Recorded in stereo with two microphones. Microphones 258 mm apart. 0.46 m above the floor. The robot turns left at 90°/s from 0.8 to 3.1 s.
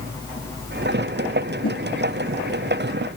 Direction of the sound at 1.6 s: 70° left (ahead or behind).